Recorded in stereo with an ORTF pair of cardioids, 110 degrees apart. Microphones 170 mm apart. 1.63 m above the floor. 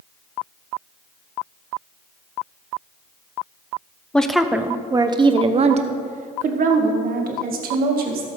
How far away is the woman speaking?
About 1.0 m.